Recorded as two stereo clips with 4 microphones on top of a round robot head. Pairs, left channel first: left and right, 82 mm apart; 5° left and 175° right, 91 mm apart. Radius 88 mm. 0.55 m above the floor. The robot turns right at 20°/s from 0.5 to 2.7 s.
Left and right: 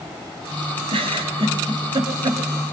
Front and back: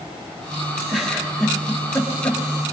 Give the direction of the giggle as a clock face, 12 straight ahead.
3 o'clock.